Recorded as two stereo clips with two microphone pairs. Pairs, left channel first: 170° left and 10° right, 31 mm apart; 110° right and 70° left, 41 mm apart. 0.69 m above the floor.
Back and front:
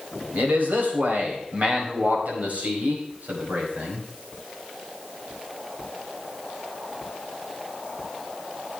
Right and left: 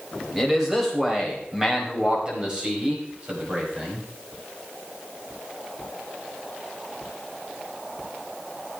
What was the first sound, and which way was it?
A man speaking, 15° right.